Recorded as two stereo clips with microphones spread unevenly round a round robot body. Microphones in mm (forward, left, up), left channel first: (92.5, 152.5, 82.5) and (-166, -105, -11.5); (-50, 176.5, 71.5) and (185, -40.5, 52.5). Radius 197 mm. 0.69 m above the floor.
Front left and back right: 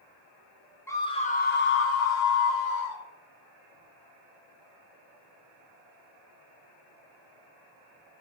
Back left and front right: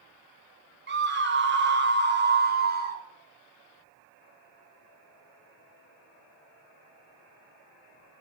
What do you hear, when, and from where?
0.9 s a scream: 55° right, 1.3 m; by 3.0 s 15° left, 1.8 m